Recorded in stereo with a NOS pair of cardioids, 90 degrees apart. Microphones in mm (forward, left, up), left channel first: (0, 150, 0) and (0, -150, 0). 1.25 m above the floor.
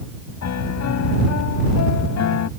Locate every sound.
0.4 s a piano: 60° left